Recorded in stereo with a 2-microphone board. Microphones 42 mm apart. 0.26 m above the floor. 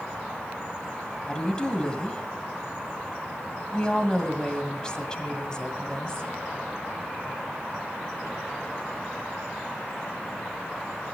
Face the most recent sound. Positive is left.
turn(degrees=20)  # may be behind; listen again after turning